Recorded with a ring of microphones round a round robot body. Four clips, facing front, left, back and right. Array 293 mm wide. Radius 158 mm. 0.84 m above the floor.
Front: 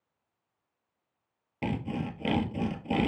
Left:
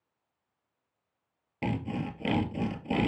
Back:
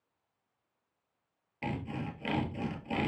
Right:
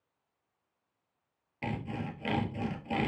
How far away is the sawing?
About 1.2 m.